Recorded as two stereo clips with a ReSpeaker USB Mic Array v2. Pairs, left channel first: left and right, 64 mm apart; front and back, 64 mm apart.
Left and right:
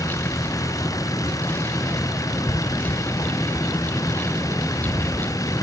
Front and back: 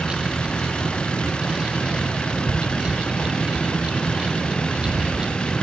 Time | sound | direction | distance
0.0 | a vehicle | 75° left | ?